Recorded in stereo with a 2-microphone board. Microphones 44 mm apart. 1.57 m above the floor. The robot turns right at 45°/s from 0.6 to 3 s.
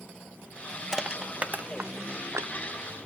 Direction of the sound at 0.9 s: 15° right (ahead or behind).